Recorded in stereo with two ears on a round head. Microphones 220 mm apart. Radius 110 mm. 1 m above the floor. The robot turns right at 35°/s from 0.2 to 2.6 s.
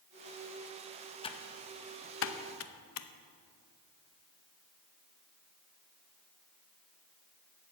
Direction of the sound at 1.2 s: 20° left (ahead or behind).